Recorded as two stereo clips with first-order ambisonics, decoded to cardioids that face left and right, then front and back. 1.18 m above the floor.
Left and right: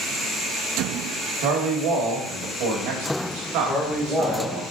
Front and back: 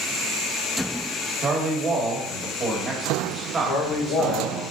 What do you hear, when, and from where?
1.4 s a man speaking: 110° right, 1.4 m
3.6 s a man speaking: 5° left, 1.3 m